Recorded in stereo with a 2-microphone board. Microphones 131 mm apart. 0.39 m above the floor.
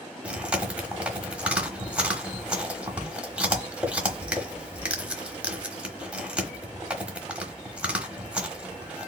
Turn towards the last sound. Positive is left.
turn(degrees=-10)  # may be behind; listen again after turning